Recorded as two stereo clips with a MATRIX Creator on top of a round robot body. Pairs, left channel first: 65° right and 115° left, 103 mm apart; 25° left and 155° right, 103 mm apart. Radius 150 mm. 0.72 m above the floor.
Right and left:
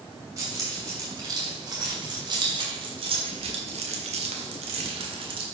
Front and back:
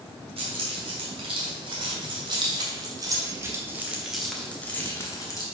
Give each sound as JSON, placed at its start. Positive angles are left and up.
{"t": 0.4, "sound": "keys jangling", "azimuth_deg": 175, "distance_m": 2.5}